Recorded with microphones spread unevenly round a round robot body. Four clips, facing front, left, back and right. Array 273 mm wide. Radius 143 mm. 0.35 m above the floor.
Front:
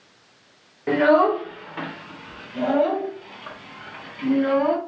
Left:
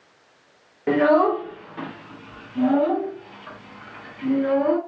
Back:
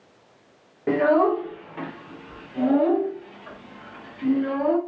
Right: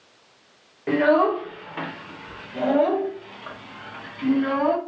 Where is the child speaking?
145° left, 0.7 m; by 4.8 s 60° right, 2.0 m.